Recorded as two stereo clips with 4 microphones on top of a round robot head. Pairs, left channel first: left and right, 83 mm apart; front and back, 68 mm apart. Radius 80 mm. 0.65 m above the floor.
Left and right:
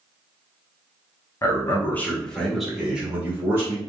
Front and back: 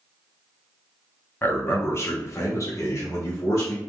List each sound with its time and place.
1.4 s a man speaking: 45° left, 1.1 m; by 3.8 s 40° right, 1.3 m